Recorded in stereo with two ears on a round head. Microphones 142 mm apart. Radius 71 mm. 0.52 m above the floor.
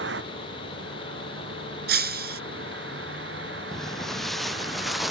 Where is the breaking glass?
70° right (ahead or behind).